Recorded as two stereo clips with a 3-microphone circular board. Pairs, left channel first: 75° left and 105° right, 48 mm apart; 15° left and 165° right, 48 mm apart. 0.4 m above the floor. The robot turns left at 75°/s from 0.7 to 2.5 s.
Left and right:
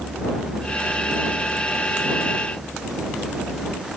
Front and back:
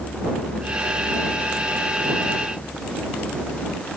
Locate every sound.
Only background noise.